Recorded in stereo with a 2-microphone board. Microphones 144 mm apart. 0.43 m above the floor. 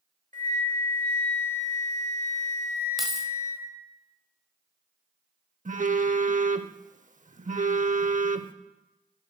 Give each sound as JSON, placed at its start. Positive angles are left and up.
{"t": 0.3, "sound": "a flute", "side_deg": -60, "distance_m": 1.2}
{"t": 3.0, "sound": "keys jangling", "side_deg": 0, "distance_m": 1.3}
{"t": 5.7, "sound": "a phone buzzing", "side_deg": -65, "distance_m": 0.6}